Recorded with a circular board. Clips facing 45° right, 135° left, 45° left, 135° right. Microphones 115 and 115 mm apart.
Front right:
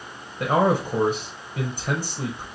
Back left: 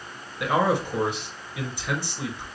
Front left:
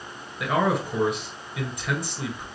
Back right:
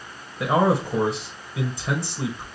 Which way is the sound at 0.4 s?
85° right.